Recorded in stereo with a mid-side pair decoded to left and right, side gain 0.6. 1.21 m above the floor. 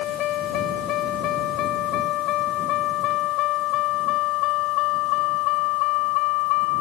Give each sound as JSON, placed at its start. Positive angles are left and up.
{"t": 0.0, "sound": "a vehicle", "azimuth_deg": 60}